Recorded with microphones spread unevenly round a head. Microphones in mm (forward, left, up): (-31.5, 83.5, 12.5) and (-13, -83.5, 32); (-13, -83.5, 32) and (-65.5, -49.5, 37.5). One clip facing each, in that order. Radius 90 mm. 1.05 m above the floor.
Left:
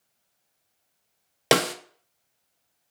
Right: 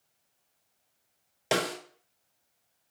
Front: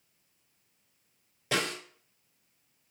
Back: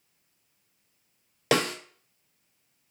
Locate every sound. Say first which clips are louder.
1.5 s a snare drum: left 7 dB, back 6 dB; 115° left, 0.5 m